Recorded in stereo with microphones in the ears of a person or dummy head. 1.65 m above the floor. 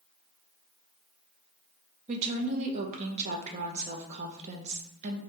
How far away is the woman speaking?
About 0.7 m.